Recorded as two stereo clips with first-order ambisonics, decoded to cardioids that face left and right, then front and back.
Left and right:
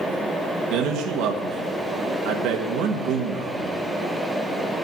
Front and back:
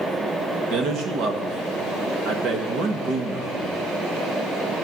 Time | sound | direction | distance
0.7 | a man speaking | 125° right | 1.4 m